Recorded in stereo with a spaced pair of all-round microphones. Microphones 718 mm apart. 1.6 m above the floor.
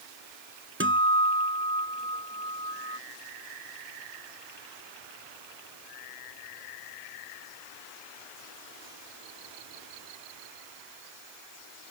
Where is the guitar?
15° right (ahead or behind).